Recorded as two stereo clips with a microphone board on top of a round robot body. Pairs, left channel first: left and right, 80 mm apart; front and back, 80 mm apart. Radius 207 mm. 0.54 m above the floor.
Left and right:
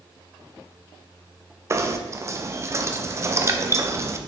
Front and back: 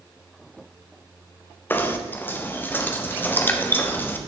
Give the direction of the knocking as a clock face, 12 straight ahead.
2 o'clock.